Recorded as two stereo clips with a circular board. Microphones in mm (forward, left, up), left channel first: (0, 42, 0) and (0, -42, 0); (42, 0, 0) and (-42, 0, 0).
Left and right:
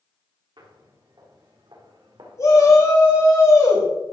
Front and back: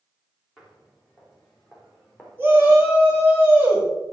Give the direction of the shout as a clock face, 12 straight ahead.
8 o'clock.